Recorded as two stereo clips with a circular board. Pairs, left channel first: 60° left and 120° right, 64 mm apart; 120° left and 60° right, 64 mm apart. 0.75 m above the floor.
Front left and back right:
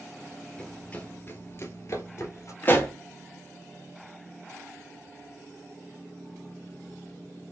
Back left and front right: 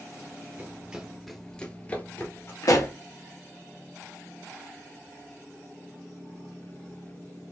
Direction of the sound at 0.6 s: 15° right.